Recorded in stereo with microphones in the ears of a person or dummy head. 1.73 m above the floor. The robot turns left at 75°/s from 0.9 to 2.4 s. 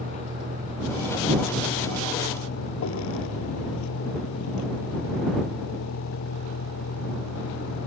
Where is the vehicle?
145° right; by 7.9 s 105° left.